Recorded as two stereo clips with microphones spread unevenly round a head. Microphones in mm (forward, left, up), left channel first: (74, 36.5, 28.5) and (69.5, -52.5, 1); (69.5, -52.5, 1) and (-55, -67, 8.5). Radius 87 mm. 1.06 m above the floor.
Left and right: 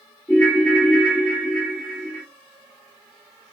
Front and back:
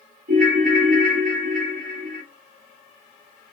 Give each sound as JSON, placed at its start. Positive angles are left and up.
{"t": 0.3, "sound": "a ringtone", "azimuth_deg": 165, "distance_m": 1.2}